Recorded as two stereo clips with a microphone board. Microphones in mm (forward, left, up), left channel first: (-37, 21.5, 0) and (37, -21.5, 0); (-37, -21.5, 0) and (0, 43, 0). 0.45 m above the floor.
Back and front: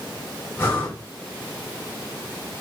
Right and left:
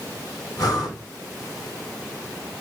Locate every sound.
0.6 s breathing: 150° right, 3 m